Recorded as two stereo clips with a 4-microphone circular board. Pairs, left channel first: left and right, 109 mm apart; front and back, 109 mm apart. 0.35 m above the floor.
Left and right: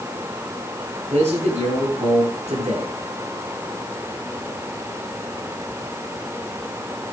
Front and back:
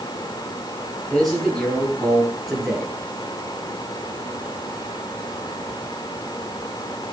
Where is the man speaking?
90° right, 9 m.